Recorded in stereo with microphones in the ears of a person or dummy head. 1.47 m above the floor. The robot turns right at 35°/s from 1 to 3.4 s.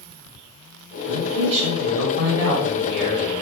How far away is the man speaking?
About 1.3 m.